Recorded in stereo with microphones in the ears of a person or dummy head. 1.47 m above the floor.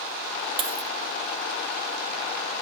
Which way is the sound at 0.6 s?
25° right (ahead or behind).